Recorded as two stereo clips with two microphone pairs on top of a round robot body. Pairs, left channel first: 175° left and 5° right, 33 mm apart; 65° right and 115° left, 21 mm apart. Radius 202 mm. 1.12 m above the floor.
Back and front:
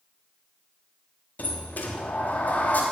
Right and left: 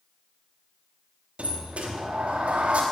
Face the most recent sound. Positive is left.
turn(degrees=135)